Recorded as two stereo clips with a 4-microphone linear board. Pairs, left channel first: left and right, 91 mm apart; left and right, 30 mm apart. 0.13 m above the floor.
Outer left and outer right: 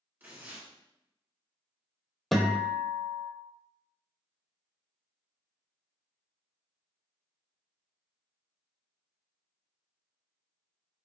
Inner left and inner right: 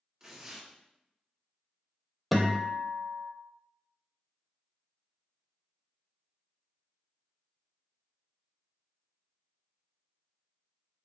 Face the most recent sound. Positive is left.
turn(degrees=0)  # may be behind; listen again after turning